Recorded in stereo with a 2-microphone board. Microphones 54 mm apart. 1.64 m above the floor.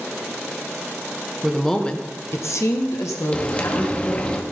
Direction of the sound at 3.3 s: 25° left (ahead or behind).